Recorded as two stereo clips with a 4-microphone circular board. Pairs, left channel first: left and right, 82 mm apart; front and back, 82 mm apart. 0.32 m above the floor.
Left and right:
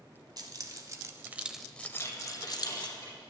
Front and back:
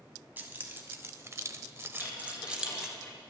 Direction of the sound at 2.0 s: 40° left.